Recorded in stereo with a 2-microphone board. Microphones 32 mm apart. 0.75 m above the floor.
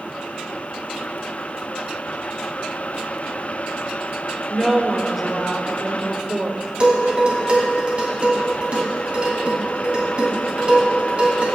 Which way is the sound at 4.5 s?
15° right (ahead or behind).